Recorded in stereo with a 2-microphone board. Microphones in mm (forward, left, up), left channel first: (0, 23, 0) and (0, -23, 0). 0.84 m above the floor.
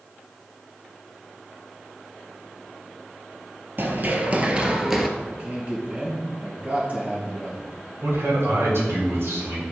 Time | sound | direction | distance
3.8 | running footsteps | 45° right (ahead or behind) | 1.2 m
5.2 | a man speaking | 35° right (ahead or behind) | 3.5 m
8.0 | a man speaking | 70° right (ahead or behind) | 3.5 m